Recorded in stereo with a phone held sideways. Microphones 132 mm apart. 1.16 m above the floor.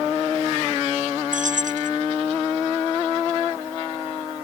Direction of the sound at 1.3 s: 75° right (ahead or behind).